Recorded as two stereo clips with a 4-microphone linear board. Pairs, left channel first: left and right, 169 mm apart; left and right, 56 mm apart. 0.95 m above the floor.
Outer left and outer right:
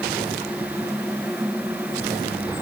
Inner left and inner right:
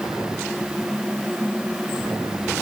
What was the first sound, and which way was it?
Only background noise.